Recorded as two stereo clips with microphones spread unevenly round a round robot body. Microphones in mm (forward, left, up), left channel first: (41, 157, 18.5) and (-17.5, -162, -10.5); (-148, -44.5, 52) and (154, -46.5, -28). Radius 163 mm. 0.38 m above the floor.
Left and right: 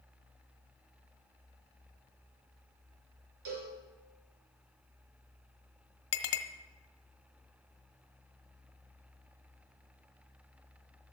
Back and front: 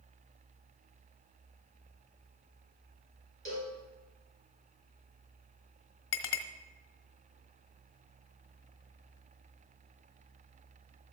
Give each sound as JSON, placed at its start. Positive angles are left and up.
{"t": 3.5, "sound": "a cowbell", "azimuth_deg": -65, "distance_m": 5.0}
{"t": 6.1, "sound": "a clink", "azimuth_deg": 125, "distance_m": 1.3}